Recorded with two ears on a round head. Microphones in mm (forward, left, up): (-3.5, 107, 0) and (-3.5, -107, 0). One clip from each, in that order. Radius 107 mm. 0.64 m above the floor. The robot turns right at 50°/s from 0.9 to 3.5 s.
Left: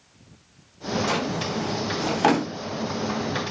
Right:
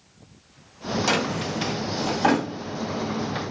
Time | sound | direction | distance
1.1 | a drawer | 30° right (ahead or behind) | 0.6 m